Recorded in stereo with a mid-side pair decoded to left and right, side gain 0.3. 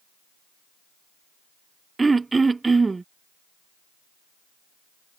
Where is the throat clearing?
35° right.